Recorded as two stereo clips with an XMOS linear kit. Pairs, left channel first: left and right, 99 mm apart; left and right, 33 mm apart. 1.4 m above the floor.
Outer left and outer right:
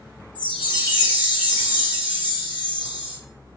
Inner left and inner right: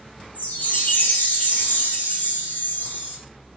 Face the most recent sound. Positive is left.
turn(degrees=50)  # may be behind; listen again after turning